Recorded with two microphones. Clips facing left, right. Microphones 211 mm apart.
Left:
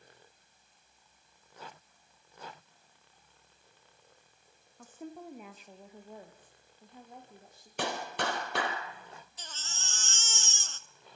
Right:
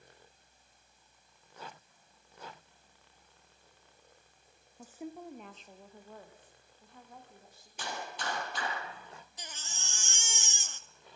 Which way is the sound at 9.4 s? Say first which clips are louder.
Even; 15° right (ahead or behind).